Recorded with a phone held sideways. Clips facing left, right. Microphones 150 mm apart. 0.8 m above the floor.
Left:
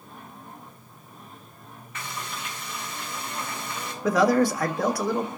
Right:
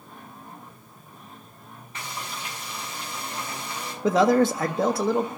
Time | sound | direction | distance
1.9 | frying | 30° right (ahead or behind) | 5 m
4.0 | a man speaking | 25° right (ahead or behind) | 1.1 m